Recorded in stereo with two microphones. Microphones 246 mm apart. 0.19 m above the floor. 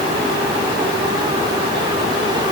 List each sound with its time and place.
Only background noise.